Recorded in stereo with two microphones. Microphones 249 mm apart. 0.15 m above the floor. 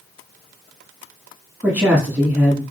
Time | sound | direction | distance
1.6 | a man speaking | 5° right (ahead or behind) | 1.2 m